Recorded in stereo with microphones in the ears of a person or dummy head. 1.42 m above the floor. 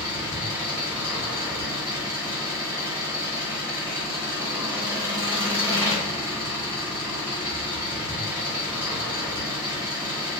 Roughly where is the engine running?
Centre.